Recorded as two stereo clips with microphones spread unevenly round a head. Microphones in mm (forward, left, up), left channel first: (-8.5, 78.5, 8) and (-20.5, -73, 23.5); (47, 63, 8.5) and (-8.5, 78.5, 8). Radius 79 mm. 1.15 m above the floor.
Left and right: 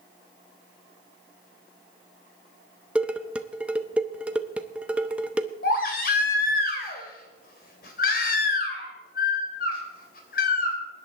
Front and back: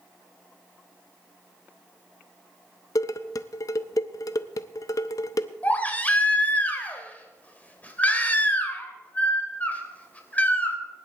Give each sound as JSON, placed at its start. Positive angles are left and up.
{"t": 3.0, "sound": "dishes clattering", "azimuth_deg": -15, "distance_m": 0.6}
{"t": 5.6, "sound": "a baby crying", "azimuth_deg": 45, "distance_m": 3.0}